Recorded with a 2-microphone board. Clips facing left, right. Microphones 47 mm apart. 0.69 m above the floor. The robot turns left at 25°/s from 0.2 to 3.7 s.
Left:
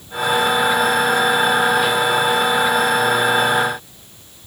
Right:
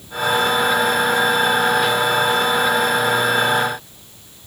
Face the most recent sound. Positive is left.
No sound to turn to.